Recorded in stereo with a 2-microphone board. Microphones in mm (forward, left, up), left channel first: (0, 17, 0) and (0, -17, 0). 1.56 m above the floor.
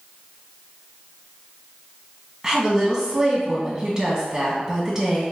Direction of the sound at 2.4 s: 5° right (ahead or behind).